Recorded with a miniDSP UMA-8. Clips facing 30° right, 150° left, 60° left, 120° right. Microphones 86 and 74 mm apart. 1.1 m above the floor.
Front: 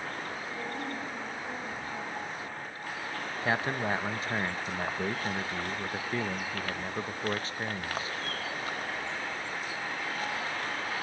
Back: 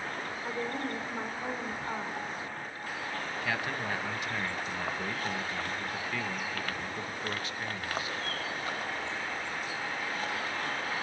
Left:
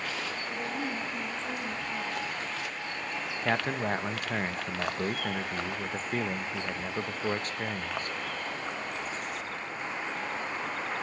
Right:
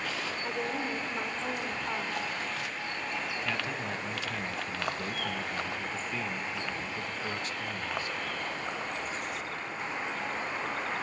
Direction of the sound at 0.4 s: 165° right.